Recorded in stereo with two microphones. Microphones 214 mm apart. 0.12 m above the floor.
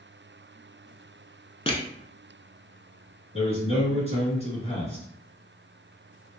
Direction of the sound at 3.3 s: 25° left (ahead or behind).